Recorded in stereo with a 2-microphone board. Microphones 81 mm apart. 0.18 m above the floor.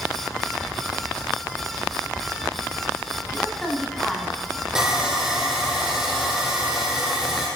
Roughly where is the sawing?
Centre.